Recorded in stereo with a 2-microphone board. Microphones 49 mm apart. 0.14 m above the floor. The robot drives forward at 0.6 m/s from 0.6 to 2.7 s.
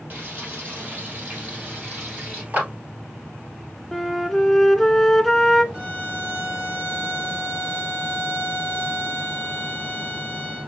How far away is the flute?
About 0.5 m.